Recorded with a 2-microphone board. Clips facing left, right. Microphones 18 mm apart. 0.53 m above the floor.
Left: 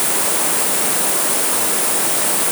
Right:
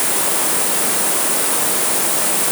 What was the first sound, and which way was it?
Only background noise.